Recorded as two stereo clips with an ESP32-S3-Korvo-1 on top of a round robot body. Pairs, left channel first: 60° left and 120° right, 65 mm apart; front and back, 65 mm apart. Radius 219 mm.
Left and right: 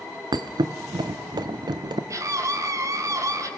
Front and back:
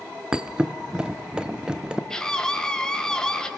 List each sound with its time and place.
0.3 s a thud: 100° right, 0.7 m
2.1 s a scream: 80° right, 4 m